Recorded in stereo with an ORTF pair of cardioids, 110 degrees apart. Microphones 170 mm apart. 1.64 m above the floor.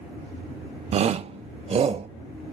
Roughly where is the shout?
Ahead right.